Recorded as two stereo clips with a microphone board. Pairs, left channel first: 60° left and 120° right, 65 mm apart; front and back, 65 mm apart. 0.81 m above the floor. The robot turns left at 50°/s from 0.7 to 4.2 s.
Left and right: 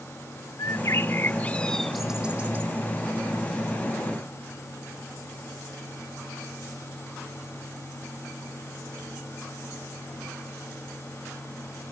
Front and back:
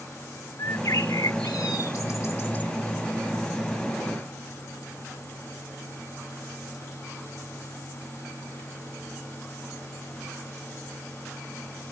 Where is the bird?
35° left; by 2.7 s 65° right.